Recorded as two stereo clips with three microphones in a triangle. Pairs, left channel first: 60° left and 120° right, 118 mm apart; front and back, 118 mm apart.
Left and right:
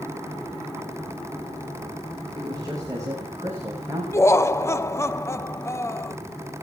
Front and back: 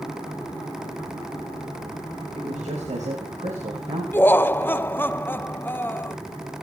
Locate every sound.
2.4 s a man speaking: 175° right, 5.5 m; by 4.0 s 165° left, 6 m
4.1 s laughter: 45° left, 0.6 m